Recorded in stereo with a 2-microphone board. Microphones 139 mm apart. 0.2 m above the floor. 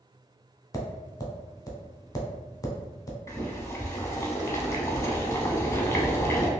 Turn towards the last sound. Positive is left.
turn(degrees=20)  # may be behind; listen again after turning